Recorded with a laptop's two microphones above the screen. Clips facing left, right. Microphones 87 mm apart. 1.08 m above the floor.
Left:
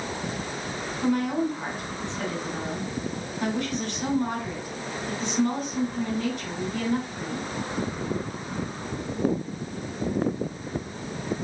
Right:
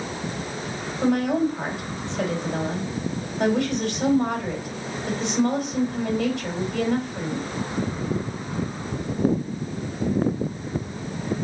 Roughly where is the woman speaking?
Right.